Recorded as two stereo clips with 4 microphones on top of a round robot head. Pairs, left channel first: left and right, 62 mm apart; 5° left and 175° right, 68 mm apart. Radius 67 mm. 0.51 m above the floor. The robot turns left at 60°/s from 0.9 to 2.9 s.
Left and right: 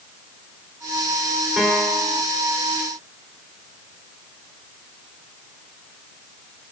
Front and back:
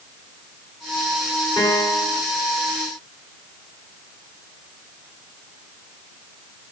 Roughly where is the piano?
Ahead.